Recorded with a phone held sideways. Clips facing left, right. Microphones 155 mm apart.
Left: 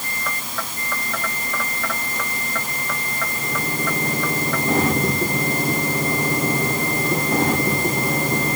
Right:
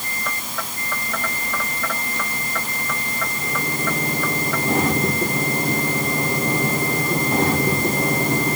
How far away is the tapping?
No tapping in this recording.